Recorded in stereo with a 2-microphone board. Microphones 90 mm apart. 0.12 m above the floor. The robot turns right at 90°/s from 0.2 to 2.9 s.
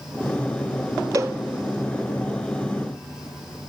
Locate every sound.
1.1 s a cowbell: 40° right (ahead or behind), 0.8 m; by 1.4 s 20° right (ahead or behind), 0.8 m